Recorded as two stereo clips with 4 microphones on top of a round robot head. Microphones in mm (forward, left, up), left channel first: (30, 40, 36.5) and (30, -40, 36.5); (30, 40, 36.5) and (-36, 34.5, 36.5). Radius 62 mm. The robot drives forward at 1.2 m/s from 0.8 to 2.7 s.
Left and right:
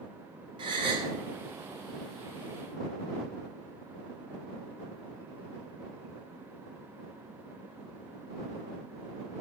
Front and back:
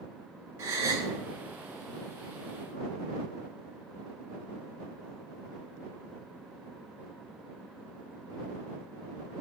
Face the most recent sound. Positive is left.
turn(degrees=-150)